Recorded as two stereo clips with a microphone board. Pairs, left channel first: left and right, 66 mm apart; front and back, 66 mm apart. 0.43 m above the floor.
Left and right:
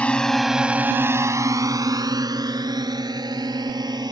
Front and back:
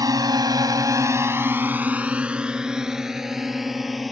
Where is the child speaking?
I don't hear a child speaking.